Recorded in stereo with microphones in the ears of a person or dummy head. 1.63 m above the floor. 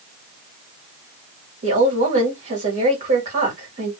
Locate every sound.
1.6 s a woman speaking: 40° right (ahead or behind), 2.0 m